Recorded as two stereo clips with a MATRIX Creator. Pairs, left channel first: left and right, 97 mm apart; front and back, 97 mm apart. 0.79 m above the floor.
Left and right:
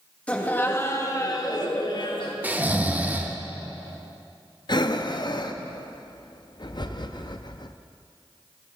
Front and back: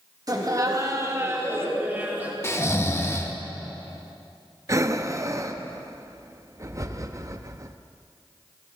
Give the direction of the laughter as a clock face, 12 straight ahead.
7 o'clock.